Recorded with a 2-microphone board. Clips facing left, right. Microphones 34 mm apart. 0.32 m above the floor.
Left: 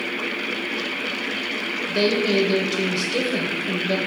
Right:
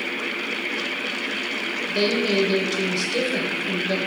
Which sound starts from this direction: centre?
A woman speaking, at 1.9 s.